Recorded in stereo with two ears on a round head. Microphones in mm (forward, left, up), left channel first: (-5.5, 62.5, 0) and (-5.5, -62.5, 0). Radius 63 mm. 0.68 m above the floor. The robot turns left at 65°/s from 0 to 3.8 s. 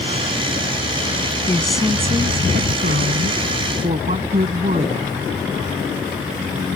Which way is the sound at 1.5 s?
15° left.